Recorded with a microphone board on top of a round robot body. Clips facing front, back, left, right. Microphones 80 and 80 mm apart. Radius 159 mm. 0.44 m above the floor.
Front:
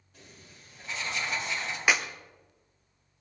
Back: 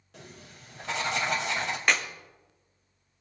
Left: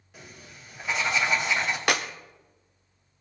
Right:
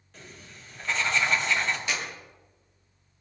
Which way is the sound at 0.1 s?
170° left.